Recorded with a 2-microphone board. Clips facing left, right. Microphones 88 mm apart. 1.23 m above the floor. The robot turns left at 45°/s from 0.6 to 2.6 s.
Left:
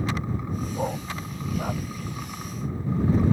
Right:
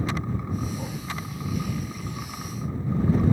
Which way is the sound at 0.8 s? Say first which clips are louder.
Left 4 dB; 40° left (ahead or behind).